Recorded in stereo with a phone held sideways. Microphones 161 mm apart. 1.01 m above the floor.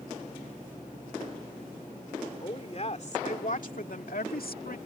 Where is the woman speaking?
40° left (ahead or behind); by 4.8 s 75° left (ahead or behind).